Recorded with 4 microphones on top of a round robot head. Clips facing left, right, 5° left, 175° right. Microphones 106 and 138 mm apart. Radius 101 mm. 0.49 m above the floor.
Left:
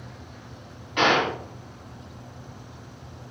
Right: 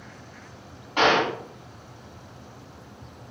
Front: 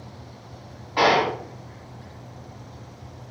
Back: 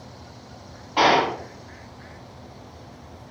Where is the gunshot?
110° right, 1.6 m.